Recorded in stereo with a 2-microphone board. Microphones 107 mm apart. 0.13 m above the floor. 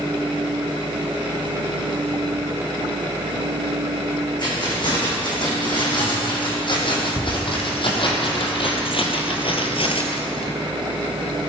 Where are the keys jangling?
45° left (ahead or behind), 6.5 m; by 10.5 s 55° left (ahead or behind), 1.9 m.